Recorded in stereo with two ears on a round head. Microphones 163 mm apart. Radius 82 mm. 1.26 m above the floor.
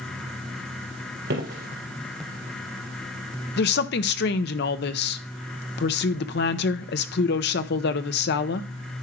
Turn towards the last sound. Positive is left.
turn(degrees=60)  # may be behind; listen again after turning